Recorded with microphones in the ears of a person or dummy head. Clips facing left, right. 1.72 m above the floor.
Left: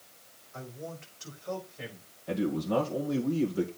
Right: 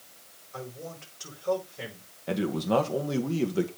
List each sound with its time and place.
0.5 s a man speaking: 80° right, 6.5 m
2.3 s a man speaking: 75° right (ahead or behind), 1.7 m